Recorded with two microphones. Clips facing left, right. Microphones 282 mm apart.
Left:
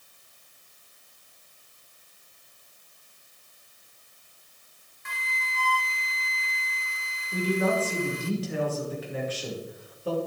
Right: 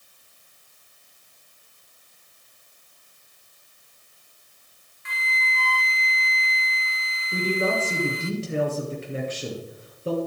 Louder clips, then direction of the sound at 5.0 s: Right 5 dB; 50° left (ahead or behind).